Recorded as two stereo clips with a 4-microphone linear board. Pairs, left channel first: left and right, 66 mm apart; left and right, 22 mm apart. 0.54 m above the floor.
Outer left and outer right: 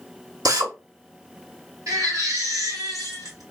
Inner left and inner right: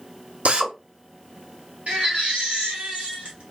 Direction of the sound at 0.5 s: 70° right (ahead or behind).